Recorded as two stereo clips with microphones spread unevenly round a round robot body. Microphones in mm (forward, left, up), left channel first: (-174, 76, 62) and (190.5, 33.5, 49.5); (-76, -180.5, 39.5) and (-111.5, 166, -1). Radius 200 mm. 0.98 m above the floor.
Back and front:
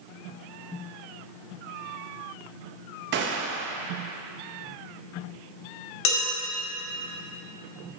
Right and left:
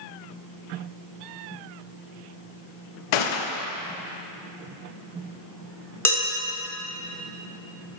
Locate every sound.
3.1 s a gunshot: 70° right, 0.6 m
6.0 s dishes clattering: 170° right, 1.9 m